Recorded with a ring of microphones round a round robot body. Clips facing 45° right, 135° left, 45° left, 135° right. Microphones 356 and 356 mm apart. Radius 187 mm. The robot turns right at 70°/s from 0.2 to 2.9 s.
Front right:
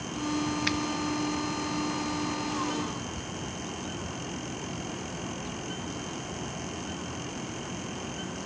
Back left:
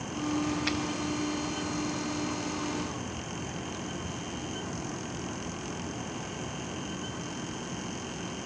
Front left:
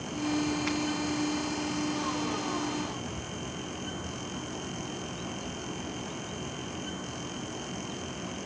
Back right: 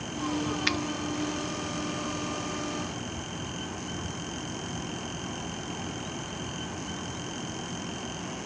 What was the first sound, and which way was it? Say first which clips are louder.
A finger snap: front right 1 dB, front left 1 dB; 120° right.